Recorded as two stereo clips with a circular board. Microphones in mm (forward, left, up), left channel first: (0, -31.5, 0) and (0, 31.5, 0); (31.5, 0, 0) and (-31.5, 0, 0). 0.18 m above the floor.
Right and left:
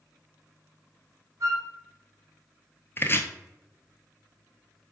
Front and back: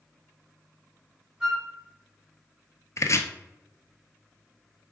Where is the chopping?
35° right, 0.5 m.